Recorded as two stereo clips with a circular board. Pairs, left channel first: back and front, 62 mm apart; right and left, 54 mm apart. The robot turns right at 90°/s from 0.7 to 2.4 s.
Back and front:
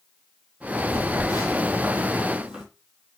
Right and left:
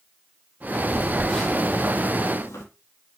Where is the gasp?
No gasp in this recording.